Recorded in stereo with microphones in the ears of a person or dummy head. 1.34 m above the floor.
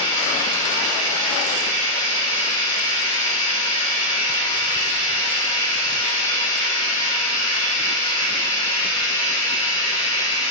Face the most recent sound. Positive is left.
turn(degrees=35)  # may be behind; listen again after turning